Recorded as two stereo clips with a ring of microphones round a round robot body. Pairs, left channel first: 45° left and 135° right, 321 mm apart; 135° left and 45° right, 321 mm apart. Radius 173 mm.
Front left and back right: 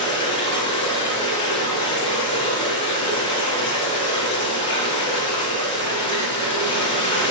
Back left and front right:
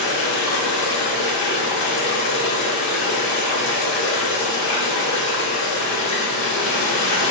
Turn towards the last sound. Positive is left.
turn(degrees=120)